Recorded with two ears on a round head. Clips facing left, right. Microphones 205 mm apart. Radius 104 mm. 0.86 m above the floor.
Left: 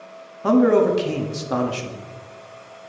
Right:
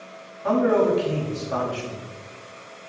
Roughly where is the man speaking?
Left.